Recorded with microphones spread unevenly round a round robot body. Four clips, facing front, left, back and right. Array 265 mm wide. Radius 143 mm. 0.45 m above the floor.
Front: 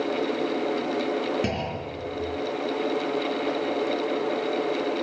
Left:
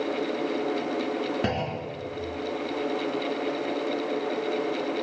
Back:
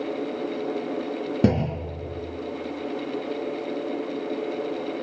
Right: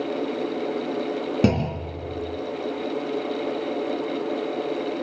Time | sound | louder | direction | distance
1.4 | a clunk | right 6 dB, back 6 dB | 135° right | 2.5 m